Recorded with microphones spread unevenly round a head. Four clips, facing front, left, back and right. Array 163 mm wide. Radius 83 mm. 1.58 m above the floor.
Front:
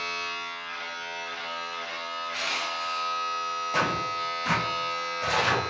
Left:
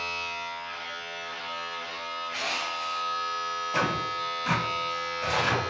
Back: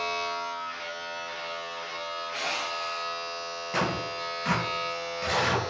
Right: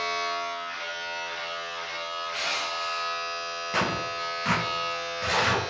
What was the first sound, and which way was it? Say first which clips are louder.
A machine running: right 6 dB, back 4 dB; 130° left.